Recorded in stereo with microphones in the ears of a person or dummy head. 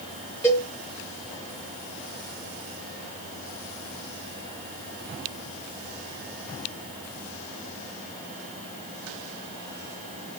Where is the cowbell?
5° left (ahead or behind), 1.0 m.